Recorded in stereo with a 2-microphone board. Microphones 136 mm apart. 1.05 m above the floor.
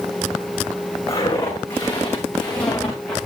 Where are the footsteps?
20° left (ahead or behind), 8 m; by 3.2 s 5° left (ahead or behind), 6.5 m.